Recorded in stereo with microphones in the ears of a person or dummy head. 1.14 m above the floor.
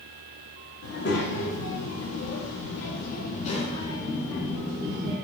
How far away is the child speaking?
About 1.3 m.